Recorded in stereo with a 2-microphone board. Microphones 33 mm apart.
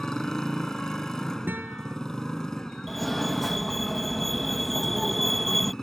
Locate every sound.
0.0 s a motorcycle: 15° left (ahead or behind)
1.5 s a guitar: 80° right
2.9 s a fire alarm: 5° left (ahead or behind)